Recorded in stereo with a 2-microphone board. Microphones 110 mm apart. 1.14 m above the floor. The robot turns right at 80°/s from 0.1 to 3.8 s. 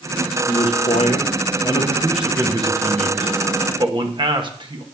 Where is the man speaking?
45° left, 1.0 m; by 4.8 s 45° right, 1.0 m.